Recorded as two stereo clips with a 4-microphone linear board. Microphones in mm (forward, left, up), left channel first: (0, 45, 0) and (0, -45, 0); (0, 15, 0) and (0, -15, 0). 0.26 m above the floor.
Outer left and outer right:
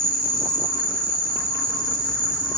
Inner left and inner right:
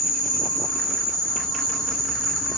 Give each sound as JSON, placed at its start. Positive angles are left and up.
{"t": 0.0, "sound": "an insect", "side_deg": 10, "distance_m": 0.8}